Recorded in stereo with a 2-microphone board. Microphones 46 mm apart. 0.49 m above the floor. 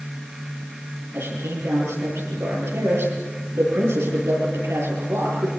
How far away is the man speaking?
About 9.5 m.